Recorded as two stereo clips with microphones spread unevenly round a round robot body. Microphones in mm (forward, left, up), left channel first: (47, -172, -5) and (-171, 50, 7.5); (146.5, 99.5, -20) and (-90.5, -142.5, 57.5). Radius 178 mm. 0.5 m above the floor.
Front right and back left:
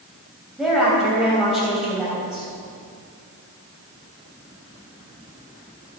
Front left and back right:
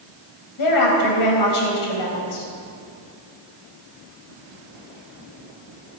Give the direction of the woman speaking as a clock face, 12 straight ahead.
10 o'clock.